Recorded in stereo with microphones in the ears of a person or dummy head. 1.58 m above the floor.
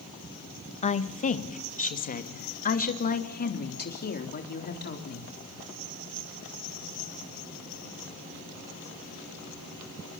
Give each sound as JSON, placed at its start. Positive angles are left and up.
{"t": 0.8, "sound": "a woman speaking", "side_deg": 35, "distance_m": 2.0}